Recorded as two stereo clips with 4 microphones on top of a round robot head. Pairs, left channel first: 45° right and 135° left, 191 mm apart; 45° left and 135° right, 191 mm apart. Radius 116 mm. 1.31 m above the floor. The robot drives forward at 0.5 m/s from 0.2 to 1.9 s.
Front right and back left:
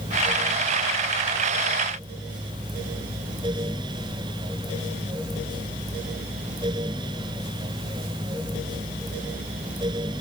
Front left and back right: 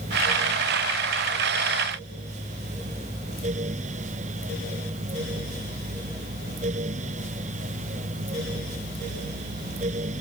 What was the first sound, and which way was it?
Only background noise.